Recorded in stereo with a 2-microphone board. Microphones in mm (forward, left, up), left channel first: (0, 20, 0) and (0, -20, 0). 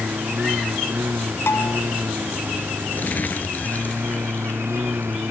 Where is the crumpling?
45° left (ahead or behind).